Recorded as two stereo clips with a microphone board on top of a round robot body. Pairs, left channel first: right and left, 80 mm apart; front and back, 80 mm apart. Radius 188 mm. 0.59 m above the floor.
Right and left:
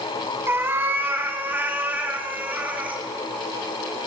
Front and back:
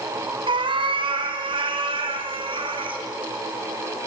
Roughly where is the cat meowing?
Behind left.